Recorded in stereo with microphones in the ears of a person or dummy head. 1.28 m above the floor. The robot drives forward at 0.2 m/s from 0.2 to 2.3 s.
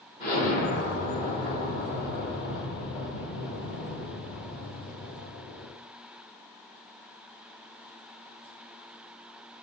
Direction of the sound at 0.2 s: 40° left (ahead or behind).